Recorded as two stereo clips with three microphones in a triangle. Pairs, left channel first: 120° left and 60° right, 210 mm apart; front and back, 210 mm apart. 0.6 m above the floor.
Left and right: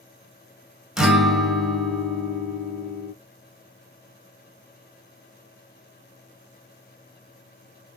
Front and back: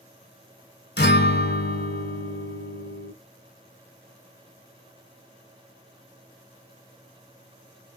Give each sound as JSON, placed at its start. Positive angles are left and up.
{"t": 1.0, "sound": "a guitar", "azimuth_deg": 25, "distance_m": 1.0}